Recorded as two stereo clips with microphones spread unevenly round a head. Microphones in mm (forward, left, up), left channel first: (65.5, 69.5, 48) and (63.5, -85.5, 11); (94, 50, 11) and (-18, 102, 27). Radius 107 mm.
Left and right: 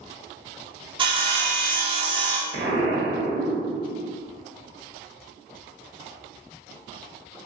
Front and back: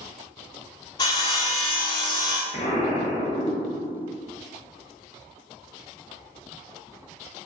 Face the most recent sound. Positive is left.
turn(degrees=-70)